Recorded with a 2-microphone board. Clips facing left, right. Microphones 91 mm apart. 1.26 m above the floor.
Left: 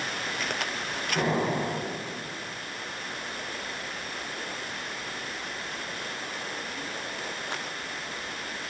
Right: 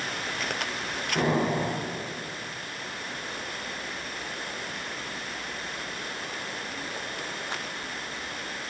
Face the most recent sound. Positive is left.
turn(degrees=-10)  # may be behind; listen again after turning